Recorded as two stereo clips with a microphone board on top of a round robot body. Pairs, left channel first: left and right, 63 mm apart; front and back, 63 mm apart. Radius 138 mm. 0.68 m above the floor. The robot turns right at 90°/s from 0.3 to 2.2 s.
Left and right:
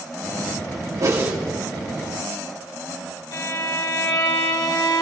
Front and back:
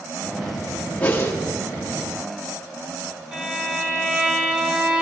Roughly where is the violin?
Left.